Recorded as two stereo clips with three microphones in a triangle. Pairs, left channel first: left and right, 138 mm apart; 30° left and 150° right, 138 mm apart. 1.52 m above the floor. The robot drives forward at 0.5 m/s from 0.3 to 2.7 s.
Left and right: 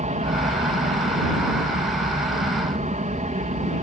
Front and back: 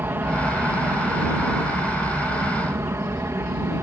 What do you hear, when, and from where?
0.0 s an aircraft: 75° right; by 3.8 s 80° right